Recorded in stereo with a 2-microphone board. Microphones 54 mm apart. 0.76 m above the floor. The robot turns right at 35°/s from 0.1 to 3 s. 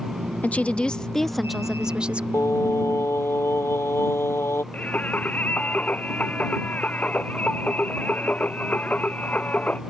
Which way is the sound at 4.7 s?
25° left (ahead or behind).